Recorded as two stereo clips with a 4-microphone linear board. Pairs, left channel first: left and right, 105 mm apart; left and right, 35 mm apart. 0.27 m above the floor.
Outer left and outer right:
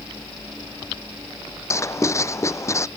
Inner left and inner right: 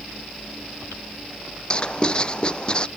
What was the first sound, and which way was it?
Writing, 30° left (ahead or behind).